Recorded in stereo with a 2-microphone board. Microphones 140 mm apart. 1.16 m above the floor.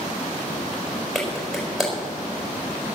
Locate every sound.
1.1 s a clap: centre (ahead or behind), 5 m